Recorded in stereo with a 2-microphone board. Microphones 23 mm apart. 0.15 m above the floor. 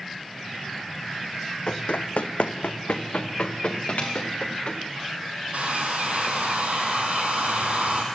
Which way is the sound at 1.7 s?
55° left (ahead or behind).